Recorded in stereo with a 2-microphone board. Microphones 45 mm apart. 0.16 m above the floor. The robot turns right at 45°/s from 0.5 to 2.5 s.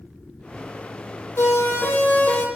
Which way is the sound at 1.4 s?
75° left (ahead or behind).